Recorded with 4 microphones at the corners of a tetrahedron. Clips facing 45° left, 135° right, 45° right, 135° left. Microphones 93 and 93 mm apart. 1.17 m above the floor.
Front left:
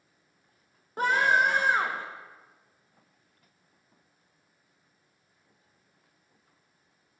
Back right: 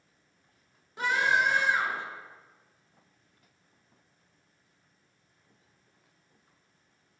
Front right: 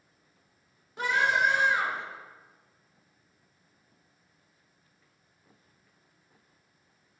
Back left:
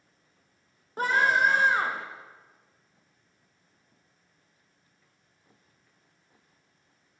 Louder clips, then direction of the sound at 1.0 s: Front left 3 dB, back left 2 dB; 90° left.